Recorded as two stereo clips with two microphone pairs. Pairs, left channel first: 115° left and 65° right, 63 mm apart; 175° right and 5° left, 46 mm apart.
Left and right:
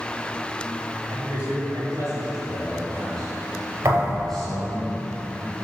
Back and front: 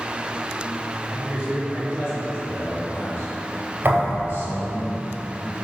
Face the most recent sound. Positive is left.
turn(degrees=-25)